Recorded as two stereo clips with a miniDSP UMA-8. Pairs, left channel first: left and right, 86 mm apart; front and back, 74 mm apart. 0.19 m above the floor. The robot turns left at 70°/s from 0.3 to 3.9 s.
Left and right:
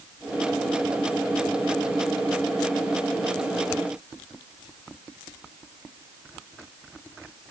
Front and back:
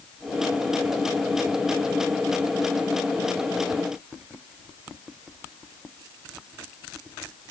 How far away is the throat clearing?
I don't hear throat clearing.